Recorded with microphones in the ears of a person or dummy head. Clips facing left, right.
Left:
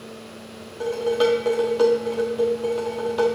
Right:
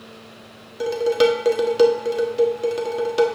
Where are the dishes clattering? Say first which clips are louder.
Right 3 dB; 35° right (ahead or behind), 1.6 m.